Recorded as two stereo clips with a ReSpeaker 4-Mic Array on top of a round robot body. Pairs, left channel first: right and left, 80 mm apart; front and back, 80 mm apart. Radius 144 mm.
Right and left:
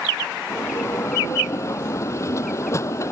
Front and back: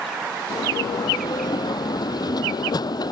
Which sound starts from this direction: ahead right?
A bell, at 0.5 s.